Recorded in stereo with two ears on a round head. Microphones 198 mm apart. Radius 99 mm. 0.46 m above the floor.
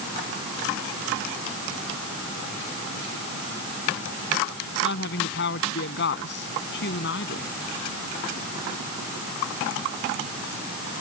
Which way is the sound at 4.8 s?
55° left (ahead or behind).